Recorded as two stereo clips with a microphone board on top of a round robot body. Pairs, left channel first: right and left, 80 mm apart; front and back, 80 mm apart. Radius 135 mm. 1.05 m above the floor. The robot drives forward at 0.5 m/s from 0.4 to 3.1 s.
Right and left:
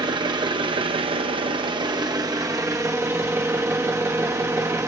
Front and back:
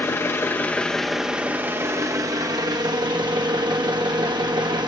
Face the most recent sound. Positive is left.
turn(degrees=145)